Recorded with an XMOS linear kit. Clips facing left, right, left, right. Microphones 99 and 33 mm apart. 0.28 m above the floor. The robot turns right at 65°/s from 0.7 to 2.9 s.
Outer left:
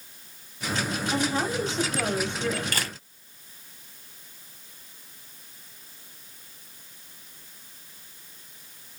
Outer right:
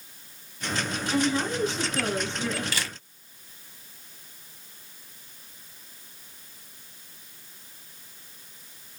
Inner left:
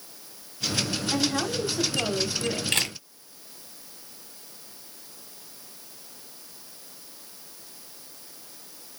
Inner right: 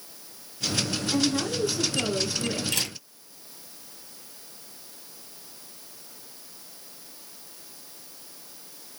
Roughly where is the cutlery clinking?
No cutlery clinking in this recording.